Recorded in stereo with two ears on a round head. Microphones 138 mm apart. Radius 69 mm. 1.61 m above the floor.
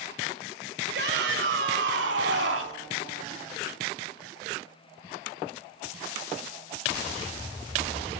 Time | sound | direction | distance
0.9 | a shout | 75° right (ahead or behind) | 5.5 m